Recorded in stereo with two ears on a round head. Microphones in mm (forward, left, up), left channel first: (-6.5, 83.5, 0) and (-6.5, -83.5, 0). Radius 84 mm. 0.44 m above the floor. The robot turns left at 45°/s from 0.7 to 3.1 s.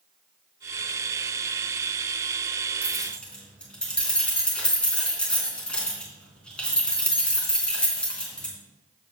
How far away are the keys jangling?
About 4 m.